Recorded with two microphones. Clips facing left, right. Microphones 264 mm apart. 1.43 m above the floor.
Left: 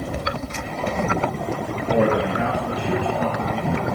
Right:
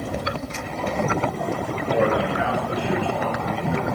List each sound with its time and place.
1.9 s a man speaking: 45° left (ahead or behind), 1.9 m; by 3.9 s 30° left (ahead or behind), 3 m